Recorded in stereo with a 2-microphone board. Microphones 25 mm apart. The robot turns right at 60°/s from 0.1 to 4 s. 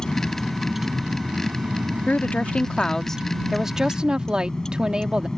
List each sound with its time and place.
0.0 s a vehicle: 150° left; by 5.4 s 25° left
2.1 s a woman speaking: 100° left; by 5.3 s 145° right